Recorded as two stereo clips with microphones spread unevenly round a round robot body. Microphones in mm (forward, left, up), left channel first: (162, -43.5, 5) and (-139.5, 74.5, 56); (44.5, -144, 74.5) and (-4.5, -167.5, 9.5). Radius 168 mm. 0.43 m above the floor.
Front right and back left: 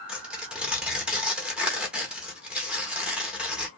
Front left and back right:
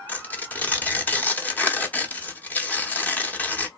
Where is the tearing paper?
105° right, 1.0 m.